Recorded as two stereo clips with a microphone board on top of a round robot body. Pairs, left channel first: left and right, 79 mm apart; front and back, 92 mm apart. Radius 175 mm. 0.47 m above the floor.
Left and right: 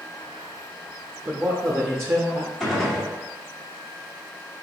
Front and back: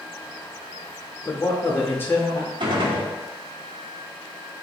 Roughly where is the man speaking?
Ahead right.